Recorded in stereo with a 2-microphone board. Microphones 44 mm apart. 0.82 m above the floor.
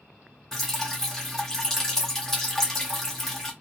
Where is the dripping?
5° left (ahead or behind), 0.9 m.